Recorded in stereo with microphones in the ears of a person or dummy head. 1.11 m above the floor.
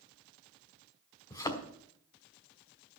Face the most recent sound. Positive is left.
turn(degrees=20)  # may be behind; listen again after turning